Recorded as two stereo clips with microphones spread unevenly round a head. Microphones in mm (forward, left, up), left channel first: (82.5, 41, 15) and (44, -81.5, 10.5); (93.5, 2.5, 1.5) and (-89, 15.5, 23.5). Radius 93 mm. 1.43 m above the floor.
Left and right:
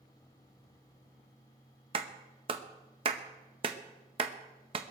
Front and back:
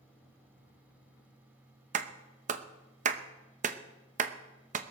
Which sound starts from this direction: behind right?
A clap, at 1.9 s.